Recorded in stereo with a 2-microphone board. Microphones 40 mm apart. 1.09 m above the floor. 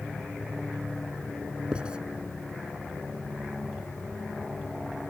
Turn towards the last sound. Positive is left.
turn(degrees=-25)  # may be behind; listen again after turning